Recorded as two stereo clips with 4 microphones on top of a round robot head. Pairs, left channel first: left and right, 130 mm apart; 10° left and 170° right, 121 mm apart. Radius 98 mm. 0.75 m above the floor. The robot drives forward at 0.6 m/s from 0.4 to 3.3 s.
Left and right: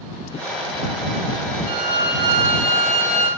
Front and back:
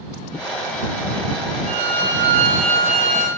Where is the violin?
145° right, 2.5 m; by 3.3 s 155° right, 3.5 m.